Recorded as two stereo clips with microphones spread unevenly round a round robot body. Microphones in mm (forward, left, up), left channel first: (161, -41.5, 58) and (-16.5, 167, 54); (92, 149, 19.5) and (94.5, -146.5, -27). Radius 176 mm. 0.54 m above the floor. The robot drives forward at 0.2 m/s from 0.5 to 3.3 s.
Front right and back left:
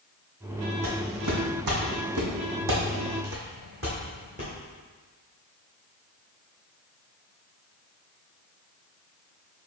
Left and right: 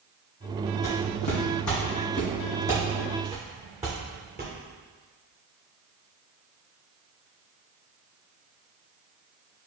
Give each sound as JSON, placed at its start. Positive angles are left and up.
{"t": 0.8, "sound": "footsteps", "azimuth_deg": 110, "distance_m": 1.6}